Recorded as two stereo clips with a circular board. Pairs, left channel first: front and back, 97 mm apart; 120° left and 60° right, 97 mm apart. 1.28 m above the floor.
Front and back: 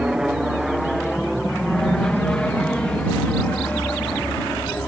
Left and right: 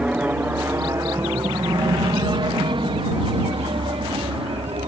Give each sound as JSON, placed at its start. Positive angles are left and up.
{"t": 0.0, "sound": "an aircraft", "azimuth_deg": -110}